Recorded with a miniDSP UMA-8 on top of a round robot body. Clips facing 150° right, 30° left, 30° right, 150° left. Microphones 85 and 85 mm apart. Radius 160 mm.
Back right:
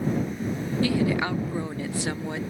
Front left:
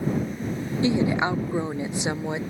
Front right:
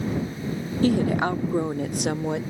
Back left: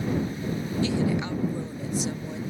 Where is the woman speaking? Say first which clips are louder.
Front left 3 dB, front right 6 dB; 30° right; by 2.4 s 40° right.